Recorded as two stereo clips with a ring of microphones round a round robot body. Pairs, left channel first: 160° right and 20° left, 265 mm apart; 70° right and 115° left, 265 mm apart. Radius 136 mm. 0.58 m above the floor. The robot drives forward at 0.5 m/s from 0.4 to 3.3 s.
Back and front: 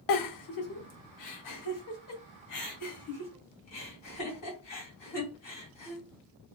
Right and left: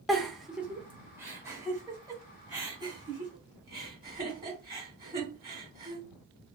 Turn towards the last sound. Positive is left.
turn(degrees=-175)